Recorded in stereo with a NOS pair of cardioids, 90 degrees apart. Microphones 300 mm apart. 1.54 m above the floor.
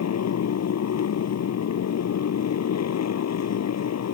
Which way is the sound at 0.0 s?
60° left.